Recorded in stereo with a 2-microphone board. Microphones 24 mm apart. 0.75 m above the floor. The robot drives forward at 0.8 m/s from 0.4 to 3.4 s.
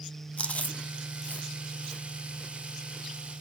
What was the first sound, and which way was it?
Chewing, 50° left (ahead or behind).